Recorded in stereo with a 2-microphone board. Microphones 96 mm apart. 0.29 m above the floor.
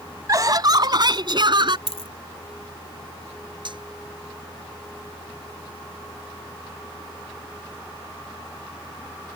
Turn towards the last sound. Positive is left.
turn(degrees=-55)  # may be behind; listen again after turning